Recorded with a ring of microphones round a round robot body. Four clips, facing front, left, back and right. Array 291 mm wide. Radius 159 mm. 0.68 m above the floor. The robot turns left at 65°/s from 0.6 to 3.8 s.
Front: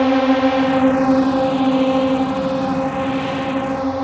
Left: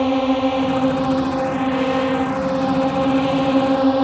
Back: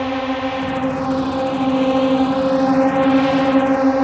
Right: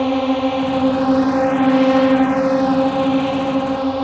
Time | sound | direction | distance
0.0 | a drone | 5° right | ?